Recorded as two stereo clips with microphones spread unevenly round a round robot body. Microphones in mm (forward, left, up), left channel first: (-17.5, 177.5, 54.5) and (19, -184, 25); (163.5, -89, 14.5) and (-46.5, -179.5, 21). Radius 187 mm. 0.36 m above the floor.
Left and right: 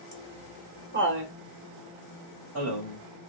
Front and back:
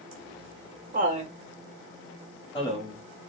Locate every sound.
0.1 s laughter: 155° right, 1.6 m; by 3.3 s 35° right, 2 m